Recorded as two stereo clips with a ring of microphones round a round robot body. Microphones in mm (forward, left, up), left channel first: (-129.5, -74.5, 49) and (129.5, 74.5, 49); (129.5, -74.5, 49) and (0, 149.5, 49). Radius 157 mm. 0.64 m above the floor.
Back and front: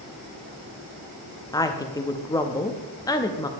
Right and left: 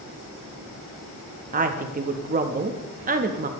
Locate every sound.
1.5 s a woman speaking: 140° left, 0.5 m